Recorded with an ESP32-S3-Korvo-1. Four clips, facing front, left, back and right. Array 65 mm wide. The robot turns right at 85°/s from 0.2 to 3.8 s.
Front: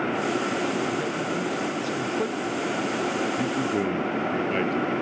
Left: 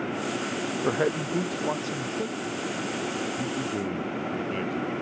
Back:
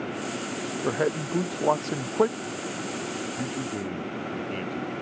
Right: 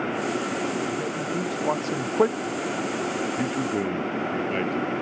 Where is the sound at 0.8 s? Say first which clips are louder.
Left 2 dB, even; 125° left; by 2.4 s 105° right.